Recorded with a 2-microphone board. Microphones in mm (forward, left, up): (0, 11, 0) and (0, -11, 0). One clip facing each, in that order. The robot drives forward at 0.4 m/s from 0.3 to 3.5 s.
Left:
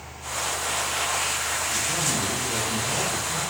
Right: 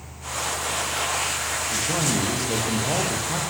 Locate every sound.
1.7 s a man speaking: 75° right (ahead or behind), 9.5 m